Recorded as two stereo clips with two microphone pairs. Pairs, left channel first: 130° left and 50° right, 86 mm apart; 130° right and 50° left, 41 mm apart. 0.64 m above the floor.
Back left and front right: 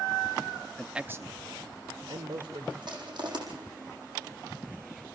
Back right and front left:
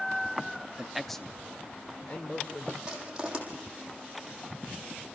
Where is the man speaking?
65° left, 0.6 m; by 2.7 s 75° right, 2.5 m.